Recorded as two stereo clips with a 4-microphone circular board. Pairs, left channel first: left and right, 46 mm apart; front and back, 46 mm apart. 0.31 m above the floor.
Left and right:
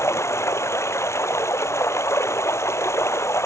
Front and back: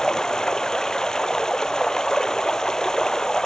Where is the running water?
75° left.